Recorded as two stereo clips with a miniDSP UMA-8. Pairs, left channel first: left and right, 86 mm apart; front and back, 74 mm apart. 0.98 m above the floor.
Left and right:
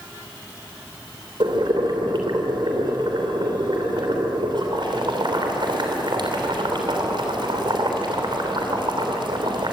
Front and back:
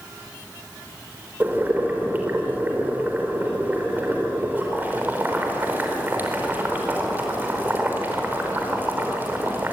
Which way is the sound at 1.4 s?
115° right.